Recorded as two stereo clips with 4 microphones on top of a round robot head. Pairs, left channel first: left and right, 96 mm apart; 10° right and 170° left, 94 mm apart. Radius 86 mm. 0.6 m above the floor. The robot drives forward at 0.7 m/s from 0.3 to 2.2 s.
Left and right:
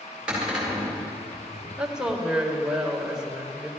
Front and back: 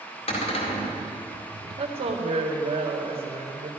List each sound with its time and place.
0.3 s a cupboard door: 10° right, 2 m
1.8 s a woman speaking: 175° right, 1.7 m